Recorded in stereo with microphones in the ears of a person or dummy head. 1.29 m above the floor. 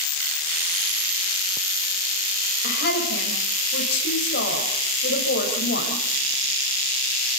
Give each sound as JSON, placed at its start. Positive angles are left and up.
{"t": 2.6, "sound": "a woman speaking", "side_deg": 60, "distance_m": 5.5}